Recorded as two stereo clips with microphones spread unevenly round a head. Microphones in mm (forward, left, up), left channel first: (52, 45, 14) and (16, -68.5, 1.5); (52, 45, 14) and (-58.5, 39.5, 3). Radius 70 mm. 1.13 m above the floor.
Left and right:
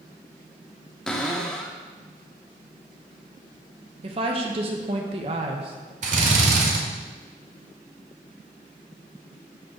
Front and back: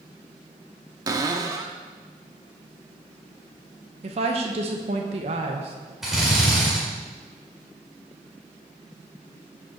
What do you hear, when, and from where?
1.1 s a cupboard door: 145° left, 0.7 m
4.0 s a woman speaking: 150° right, 1.0 m
6.0 s a drill: 85° right, 1.6 m